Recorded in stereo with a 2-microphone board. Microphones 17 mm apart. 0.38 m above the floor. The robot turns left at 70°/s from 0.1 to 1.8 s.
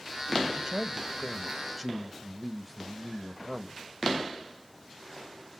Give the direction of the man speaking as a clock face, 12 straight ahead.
3 o'clock.